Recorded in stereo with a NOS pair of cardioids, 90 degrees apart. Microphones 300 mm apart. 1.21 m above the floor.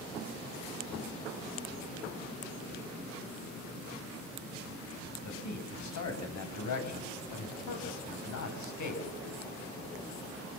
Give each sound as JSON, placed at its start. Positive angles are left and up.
{"t": 5.2, "sound": "a man speaking", "azimuth_deg": 70, "distance_m": 9.0}